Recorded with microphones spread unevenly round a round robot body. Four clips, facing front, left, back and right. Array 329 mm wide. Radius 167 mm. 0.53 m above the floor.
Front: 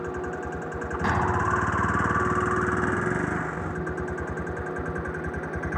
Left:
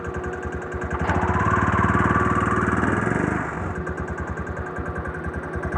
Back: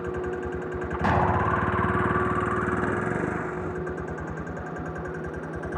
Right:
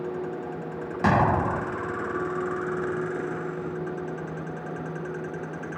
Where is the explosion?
110° right.